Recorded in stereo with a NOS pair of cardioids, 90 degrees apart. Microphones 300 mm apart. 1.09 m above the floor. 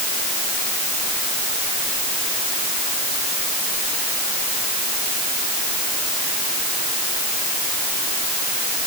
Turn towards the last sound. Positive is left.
No sound to turn to.